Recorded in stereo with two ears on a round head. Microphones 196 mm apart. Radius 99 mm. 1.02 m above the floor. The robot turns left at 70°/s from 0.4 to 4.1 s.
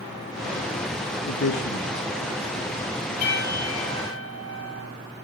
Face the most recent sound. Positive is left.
turn(degrees=25)